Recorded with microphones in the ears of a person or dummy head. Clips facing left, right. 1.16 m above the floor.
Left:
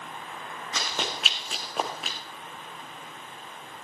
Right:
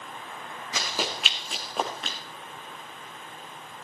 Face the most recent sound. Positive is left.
turn(degrees=5)  # may be behind; listen again after turning